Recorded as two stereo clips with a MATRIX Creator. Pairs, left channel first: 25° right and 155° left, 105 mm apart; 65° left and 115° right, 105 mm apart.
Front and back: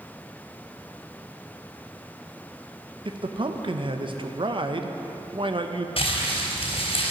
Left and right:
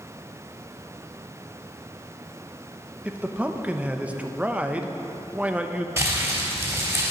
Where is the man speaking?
175° left, 0.7 m.